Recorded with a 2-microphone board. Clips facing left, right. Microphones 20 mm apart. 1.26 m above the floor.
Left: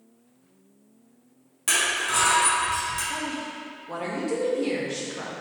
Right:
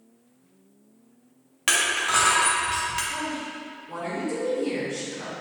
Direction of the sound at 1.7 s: 40° right (ahead or behind).